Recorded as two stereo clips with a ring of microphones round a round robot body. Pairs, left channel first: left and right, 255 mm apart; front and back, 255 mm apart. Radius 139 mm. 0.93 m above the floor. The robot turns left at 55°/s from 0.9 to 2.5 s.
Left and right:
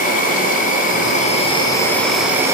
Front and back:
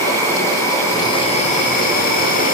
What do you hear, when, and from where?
0.0 s an insect: 70° left, 1.3 m; by 2.5 s 20° right, 1.3 m